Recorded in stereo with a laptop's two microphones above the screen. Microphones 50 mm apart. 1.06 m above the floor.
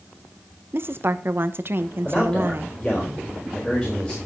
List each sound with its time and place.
0.7 s a woman speaking: 50° right (ahead or behind), 0.8 m
2.0 s a man speaking: 20° left (ahead or behind), 4.5 m